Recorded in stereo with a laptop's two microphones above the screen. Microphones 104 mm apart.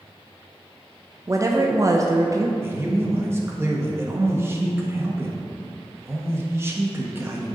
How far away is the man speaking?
About 1.2 m.